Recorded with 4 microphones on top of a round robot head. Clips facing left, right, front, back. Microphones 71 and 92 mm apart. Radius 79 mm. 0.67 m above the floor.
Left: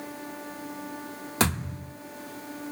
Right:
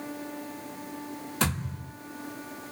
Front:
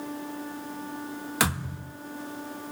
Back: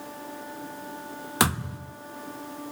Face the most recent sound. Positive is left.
turn(degrees=120)